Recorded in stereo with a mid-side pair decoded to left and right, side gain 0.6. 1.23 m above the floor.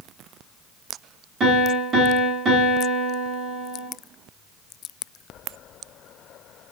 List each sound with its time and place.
1.4 s a piano: 40° right, 1.9 m